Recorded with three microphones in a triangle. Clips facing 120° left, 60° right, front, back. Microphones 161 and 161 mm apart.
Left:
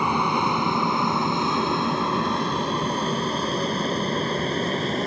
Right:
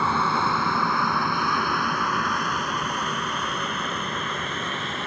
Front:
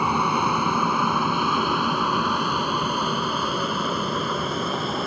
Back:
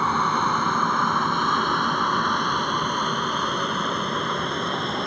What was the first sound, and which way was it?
An aircraft, 65° left.